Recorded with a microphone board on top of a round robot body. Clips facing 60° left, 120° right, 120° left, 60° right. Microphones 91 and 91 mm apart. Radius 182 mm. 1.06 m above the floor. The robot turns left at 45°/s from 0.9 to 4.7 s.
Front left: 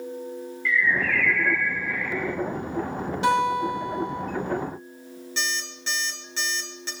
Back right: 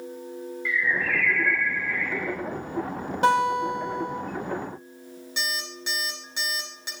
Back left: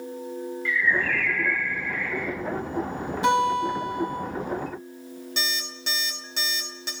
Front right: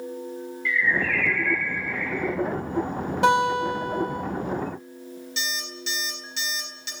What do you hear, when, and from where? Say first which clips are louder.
0.7 s a bird: front left 3 dB, even; 165° left, 3.5 m; by 2.4 s 100° left, 3.5 m
3.2 s a guitar: back right 1 dB, front right 1 dB; 80° right, 5 m; by 4.2 s 125° right, 5 m
5.4 s an alarm clock: front left 1 dB, back left 1 dB; 165° left, 5 m